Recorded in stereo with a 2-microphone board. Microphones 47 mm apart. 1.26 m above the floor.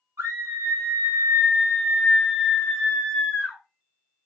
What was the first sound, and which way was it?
A scream, 80° right.